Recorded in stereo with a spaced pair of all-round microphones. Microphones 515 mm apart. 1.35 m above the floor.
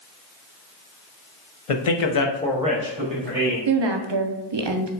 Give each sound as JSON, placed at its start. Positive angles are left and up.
{"t": 1.7, "sound": "a man speaking", "side_deg": 75, "distance_m": 0.8}
{"t": 3.7, "sound": "a woman speaking", "side_deg": -55, "distance_m": 0.5}